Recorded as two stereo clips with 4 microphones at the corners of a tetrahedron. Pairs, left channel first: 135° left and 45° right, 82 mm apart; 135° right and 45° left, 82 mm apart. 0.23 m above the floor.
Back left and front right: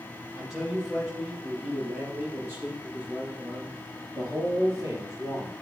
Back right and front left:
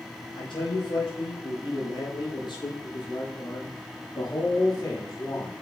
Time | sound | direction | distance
0.3 | a man speaking | 135° right | 6.5 m